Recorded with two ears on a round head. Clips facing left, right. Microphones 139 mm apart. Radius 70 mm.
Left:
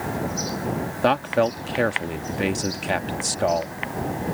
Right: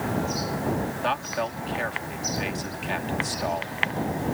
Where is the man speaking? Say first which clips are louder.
Left 13 dB; 60° left (ahead or behind).